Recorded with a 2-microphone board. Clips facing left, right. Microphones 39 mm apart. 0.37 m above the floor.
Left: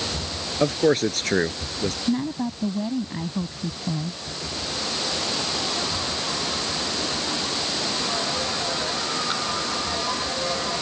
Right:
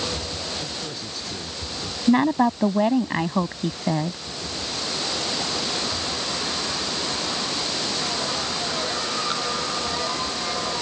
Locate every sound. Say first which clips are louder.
0.6 s a man speaking: left 13 dB; 70° left (ahead or behind)
2.1 s a woman speaking: right 10 dB; 60° right (ahead or behind)